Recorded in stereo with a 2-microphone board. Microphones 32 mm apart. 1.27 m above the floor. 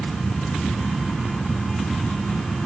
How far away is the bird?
I don't hear a bird.